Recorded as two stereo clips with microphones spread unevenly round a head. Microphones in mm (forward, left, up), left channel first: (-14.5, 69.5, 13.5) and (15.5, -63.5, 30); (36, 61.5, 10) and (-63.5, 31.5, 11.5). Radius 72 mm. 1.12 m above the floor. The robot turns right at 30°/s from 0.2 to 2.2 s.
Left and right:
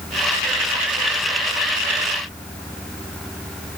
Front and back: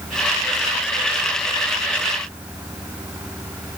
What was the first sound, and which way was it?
Only background noise.